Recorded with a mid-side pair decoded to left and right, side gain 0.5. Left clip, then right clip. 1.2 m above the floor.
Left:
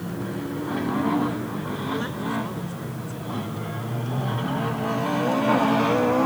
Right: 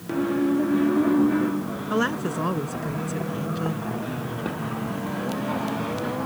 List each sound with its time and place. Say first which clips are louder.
1.9 s a woman speaking: right 6 dB; 50° right